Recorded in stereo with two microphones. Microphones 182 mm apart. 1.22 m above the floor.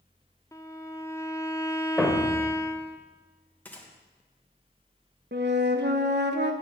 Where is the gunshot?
10° left (ahead or behind), 1.7 m.